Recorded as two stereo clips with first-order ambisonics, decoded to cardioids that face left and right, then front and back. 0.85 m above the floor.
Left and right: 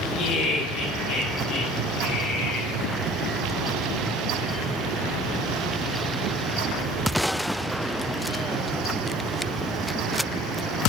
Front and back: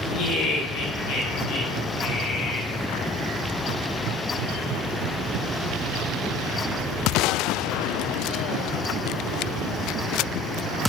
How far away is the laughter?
About 3 m.